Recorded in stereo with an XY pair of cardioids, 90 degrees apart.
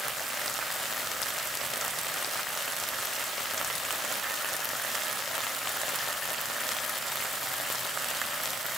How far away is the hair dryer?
I don't hear a hair dryer.